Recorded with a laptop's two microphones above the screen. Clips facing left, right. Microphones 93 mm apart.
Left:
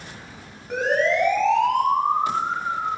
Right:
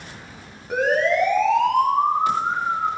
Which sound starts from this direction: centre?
A siren, at 0.7 s.